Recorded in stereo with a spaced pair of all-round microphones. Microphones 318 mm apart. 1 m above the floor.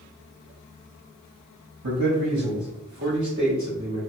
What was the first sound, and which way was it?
A man speaking, 60° right (ahead or behind).